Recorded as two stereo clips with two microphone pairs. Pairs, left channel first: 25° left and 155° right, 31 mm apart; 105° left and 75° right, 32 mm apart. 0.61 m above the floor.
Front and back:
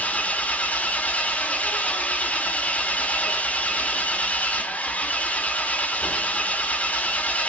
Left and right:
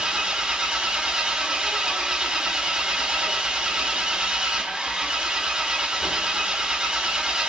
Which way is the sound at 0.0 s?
15° right.